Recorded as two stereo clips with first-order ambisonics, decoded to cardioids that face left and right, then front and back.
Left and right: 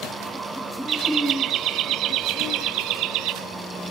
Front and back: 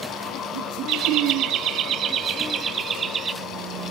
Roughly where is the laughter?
Behind right.